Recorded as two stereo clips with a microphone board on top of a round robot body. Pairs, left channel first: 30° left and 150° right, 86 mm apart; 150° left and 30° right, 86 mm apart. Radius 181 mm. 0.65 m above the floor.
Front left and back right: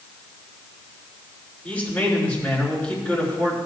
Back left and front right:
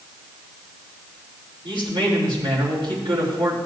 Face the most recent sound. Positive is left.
turn(degrees=-40)